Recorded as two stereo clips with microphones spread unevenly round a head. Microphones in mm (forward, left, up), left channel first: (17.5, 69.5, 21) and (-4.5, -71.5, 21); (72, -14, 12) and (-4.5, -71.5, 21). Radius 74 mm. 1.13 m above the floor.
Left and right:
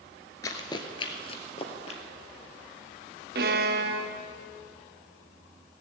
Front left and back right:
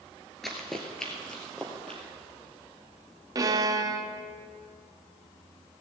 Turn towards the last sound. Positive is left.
turn(degrees=-105)